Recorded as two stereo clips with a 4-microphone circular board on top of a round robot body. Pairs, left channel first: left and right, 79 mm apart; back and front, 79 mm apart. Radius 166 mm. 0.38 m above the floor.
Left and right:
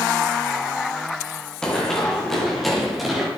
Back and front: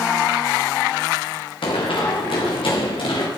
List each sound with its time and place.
1.6 s running footsteps: 175° left, 5.5 m; by 3.3 s 175° right, 6 m